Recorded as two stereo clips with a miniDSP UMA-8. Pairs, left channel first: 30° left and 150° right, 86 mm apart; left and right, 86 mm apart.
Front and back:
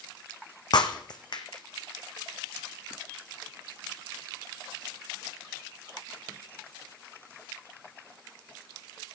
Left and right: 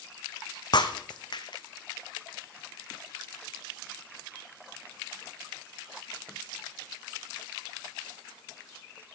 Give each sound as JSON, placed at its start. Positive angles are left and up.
{"t": 0.7, "sound": "breaking glass", "azimuth_deg": 60, "distance_m": 1.1}